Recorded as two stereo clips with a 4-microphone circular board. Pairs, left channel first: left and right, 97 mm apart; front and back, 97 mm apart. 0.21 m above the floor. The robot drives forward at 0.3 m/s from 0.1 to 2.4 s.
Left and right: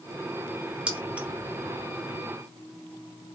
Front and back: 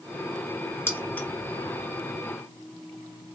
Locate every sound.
0.9 s keys jangling: 30° right, 0.9 m; by 1.3 s 40° right, 0.8 m